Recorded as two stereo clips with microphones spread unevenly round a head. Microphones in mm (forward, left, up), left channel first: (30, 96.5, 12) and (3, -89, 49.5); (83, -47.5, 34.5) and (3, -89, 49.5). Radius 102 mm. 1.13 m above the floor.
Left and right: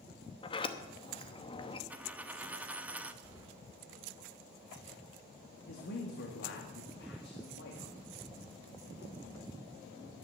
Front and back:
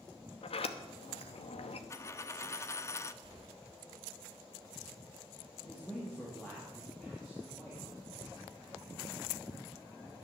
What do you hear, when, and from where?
0.4 s a sliding door: 15° left, 1.0 m
1.9 s a dropped coin: 30° right, 0.5 m
3.2 s keys jangling: 175° right, 2 m
5.7 s a man speaking: 110° left, 2 m